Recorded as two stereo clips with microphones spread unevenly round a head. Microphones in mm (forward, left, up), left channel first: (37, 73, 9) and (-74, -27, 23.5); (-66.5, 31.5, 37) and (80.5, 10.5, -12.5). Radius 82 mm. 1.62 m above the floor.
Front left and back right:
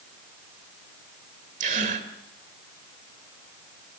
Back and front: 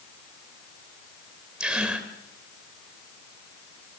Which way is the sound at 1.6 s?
105° right.